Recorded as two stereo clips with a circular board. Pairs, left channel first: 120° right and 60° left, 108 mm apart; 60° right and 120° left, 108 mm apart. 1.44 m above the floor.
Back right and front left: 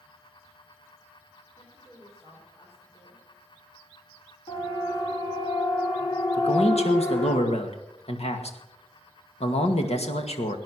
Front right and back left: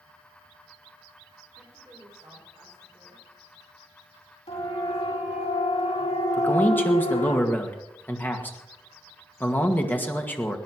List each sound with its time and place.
1.6 s a woman speaking: 175° right, 6 m
4.5 s a siren: 85° right, 4.5 m; by 7.4 s 60° right, 5.5 m
6.4 s a man speaking: 130° right, 2 m